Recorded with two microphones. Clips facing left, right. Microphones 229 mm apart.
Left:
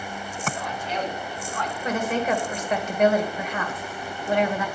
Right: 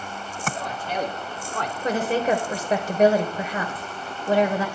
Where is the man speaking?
45° right (ahead or behind), 2.5 m; by 1.7 s 65° right (ahead or behind), 2.5 m.